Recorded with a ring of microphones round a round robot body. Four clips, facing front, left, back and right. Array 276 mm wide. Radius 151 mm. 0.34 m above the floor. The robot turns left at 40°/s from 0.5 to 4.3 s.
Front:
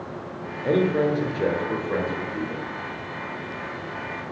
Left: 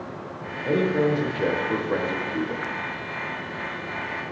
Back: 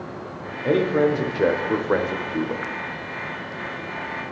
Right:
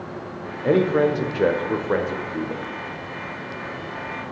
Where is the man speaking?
100° right, 1.1 m; by 2.6 s 175° right, 1.1 m.